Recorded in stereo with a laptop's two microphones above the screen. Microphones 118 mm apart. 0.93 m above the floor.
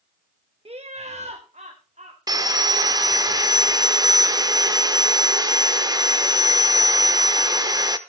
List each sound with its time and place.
0.7 s laughter: 55° right (ahead or behind), 0.8 m; by 2.2 s 80° right, 2.5 m
2.3 s sawing: 35° right (ahead or behind), 0.9 m